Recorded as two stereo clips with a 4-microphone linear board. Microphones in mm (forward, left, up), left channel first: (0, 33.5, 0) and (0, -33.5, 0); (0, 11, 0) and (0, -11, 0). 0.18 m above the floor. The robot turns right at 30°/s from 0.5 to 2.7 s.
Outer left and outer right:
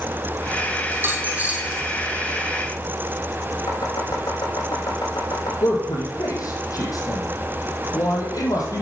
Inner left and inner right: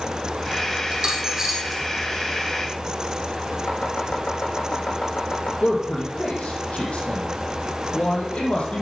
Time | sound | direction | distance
0.9 | a dropped coin | 40° right (ahead or behind) | 3 m
3.7 | chopping | 85° left | 7 m
5.6 | a man speaking | 60° left (ahead or behind) | 5.5 m